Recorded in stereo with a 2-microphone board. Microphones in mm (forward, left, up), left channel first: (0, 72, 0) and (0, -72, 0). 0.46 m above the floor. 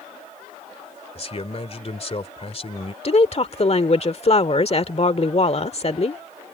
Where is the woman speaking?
45° left (ahead or behind).